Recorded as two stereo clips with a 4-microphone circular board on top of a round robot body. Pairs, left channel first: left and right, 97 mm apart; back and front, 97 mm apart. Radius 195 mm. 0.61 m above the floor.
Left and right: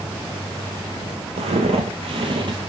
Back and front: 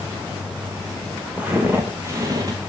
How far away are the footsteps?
About 1.4 m.